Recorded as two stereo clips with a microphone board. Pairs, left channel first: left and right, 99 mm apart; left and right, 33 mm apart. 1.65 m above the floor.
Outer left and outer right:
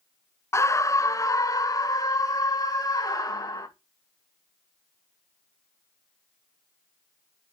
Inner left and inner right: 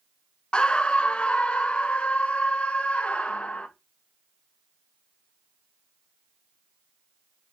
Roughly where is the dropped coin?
I don't hear a dropped coin.